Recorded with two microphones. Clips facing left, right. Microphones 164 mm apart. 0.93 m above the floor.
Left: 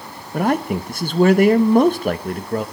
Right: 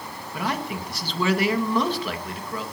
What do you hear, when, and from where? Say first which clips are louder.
0.3 s a man speaking: left 10 dB; 50° left (ahead or behind), 1.1 m